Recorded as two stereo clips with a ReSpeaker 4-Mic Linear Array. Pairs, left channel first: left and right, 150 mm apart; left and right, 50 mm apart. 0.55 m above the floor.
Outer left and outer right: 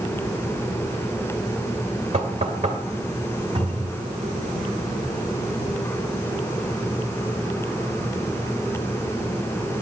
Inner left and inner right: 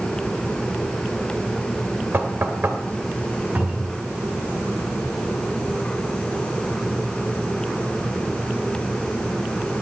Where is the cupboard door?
35° right (ahead or behind), 4 m.